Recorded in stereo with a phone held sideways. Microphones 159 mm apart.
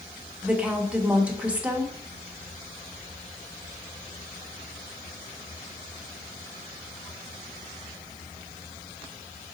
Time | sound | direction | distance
0.4 | a woman speaking | 10° right (ahead or behind) | 0.7 m